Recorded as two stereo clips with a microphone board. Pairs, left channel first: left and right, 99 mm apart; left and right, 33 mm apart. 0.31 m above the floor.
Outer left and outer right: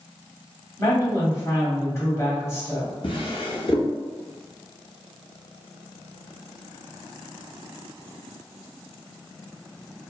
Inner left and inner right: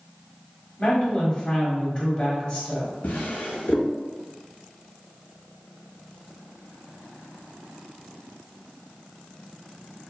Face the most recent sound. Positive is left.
turn(degrees=60)  # may be behind; listen again after turning